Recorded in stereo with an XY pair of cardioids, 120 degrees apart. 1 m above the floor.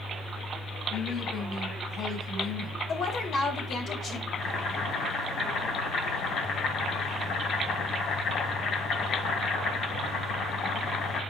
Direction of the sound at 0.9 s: 60° left.